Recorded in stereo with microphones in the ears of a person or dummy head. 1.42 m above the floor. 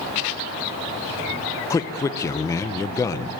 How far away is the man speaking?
About 0.8 m.